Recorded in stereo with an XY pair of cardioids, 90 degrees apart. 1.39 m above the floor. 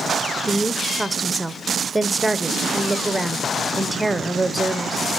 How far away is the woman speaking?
About 0.9 m.